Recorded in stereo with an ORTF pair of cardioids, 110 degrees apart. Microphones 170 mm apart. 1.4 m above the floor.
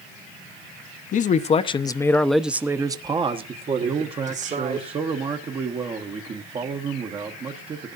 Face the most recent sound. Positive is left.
turn(degrees=-35)